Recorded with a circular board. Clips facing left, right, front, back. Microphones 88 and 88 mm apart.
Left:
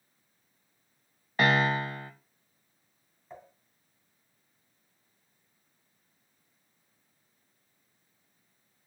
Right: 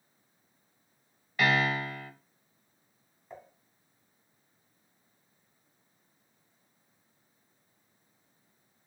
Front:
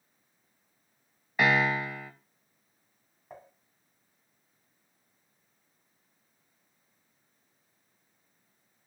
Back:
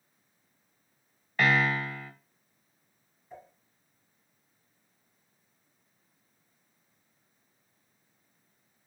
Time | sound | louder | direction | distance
1.4 | a piano | left 2 dB, front 1 dB | 70° left | 0.6 m
3.3 | dishes clattering | even, even | straight ahead | 1.7 m